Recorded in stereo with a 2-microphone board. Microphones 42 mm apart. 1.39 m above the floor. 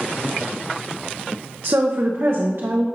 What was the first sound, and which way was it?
A woman speaking, 75° right (ahead or behind).